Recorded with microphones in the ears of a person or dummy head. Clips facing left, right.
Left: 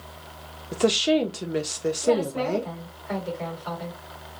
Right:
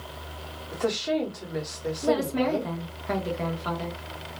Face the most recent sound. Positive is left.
turn(degrees=-60)  # may be behind; listen again after turning